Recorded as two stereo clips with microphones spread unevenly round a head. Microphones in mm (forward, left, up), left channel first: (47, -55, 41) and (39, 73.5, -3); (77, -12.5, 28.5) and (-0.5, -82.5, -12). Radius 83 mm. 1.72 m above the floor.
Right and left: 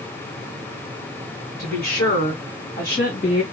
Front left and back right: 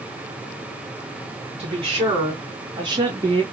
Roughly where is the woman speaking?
Right.